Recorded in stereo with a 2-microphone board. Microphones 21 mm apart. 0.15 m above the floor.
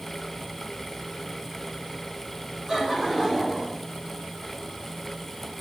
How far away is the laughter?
About 6 m.